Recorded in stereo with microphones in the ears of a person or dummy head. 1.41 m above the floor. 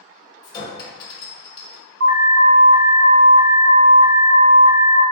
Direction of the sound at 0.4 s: 25° left (ahead or behind).